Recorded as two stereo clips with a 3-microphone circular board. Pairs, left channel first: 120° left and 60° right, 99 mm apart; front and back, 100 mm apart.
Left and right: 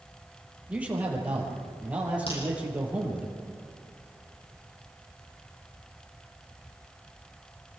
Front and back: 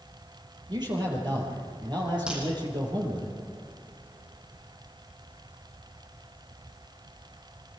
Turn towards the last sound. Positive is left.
turn(degrees=100)